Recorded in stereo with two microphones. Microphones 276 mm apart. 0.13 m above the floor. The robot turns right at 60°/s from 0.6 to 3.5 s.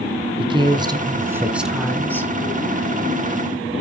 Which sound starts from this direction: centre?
A woman speaking, at 0.4 s.